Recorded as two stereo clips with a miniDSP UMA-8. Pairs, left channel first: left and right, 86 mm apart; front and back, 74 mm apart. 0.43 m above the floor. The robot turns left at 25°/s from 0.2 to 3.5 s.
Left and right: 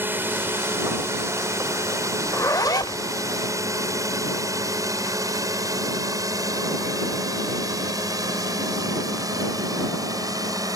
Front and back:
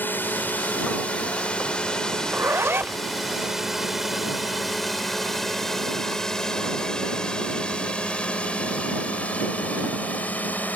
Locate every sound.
0.0 s a drone: 40° right; by 10.8 s 60° right
2.2 s a zipper: 140° left; by 3.0 s 120° left